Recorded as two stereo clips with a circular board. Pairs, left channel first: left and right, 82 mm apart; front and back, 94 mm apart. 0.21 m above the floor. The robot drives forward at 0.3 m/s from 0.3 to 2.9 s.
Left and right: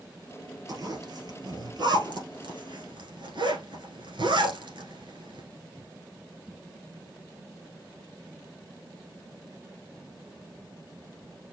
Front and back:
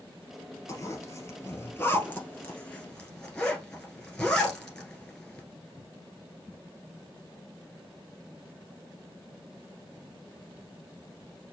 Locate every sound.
0.7 s a zipper: 60° right, 1.7 m; by 5.5 s 85° right, 1.4 m